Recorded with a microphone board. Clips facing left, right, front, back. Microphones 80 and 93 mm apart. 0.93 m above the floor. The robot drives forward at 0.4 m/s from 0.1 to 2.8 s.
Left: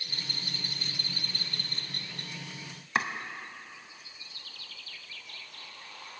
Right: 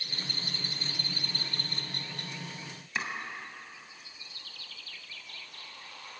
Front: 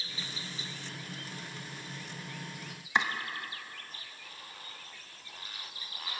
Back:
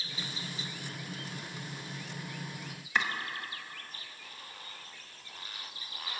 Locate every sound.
3.0 s chopping: 65° left, 0.8 m